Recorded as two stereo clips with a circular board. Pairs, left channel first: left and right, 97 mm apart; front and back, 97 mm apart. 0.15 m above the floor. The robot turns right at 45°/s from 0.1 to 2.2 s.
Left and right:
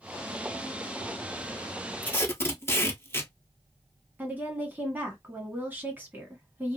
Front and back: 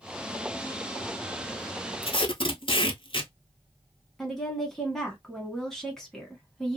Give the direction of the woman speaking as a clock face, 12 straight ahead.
3 o'clock.